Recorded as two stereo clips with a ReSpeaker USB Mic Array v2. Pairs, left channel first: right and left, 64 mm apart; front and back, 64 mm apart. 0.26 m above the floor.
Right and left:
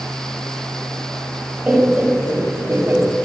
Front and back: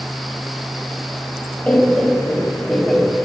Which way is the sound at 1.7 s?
45° left.